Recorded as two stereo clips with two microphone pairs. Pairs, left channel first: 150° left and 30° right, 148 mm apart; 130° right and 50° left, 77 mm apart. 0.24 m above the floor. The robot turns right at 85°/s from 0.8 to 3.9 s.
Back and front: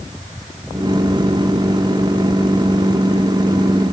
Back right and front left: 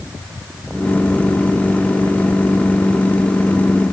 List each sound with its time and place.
Only background noise.